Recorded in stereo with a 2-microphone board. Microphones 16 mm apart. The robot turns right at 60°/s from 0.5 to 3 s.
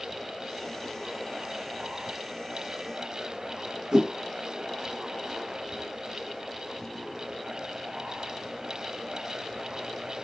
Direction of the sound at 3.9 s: 30° right (ahead or behind).